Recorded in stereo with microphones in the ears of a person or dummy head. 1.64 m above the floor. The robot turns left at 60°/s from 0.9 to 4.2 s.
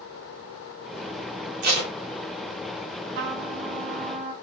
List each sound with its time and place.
1.6 s tape being pulled: 55° right (ahead or behind), 1.6 m; by 1.9 s 35° right (ahead or behind), 1.6 m
3.1 s a trumpet: 75° right, 0.9 m; by 4.3 s 135° right, 0.9 m